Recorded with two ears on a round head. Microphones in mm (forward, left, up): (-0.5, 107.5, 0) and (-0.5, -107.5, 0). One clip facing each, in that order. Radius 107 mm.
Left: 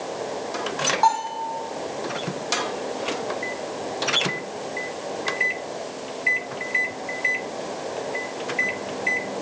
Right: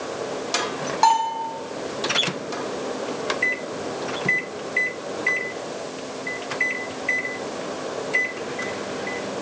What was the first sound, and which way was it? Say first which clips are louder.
A bell: right 2 dB; 45° right (ahead or behind).